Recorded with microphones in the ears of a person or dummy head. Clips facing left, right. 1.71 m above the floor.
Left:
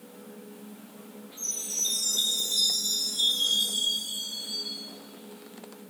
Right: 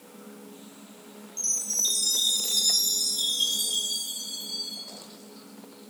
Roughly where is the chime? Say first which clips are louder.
Even; right.